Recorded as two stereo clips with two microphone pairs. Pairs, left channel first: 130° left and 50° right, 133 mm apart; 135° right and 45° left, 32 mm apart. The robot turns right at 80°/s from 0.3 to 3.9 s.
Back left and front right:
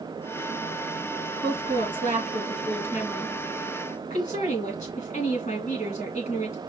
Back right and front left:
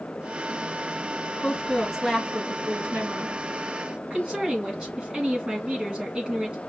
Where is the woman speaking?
100° right, 2.5 m; by 6.6 s 100° left, 2.5 m.